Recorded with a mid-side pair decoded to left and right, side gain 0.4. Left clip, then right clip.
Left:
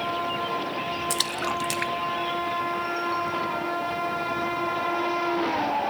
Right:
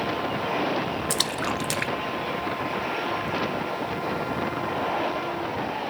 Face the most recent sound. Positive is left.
turn(degrees=-10)